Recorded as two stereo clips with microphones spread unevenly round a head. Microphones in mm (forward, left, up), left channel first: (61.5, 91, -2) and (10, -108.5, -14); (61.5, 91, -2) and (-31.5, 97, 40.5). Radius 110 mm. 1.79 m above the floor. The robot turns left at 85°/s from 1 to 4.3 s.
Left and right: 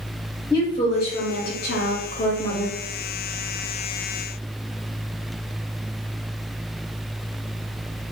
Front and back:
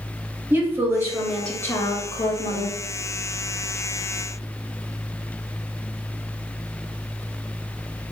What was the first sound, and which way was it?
A woman speaking, 135° left.